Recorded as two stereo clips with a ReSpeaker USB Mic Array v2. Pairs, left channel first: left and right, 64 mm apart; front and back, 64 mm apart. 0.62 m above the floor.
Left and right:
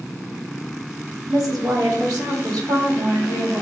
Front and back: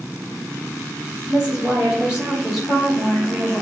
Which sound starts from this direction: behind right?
A woman speaking, at 1.3 s.